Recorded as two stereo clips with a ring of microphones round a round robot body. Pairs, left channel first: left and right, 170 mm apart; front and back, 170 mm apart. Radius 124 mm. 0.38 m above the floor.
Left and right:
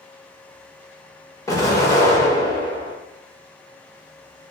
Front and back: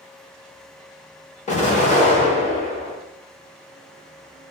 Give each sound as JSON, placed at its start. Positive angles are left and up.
{"t": 1.5, "sound": "an explosion", "azimuth_deg": 25, "distance_m": 1.3}